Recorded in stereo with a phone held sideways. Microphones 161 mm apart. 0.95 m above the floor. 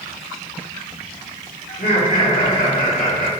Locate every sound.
1.7 s laughter: 60° left (ahead or behind), 2 m